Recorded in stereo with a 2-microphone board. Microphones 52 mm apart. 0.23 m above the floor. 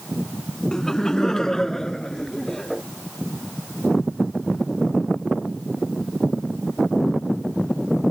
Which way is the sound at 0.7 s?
10° left (ahead or behind).